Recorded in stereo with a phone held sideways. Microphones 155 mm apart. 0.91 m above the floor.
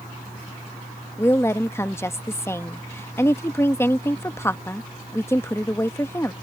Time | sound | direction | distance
1.2 | a woman speaking | 15° left (ahead or behind) | ?